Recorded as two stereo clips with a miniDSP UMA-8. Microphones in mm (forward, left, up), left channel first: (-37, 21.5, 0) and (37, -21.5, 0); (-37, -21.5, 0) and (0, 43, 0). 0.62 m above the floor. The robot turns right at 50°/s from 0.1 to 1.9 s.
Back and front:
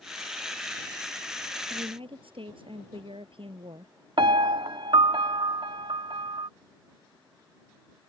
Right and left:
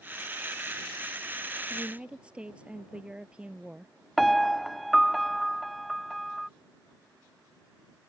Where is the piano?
30° right.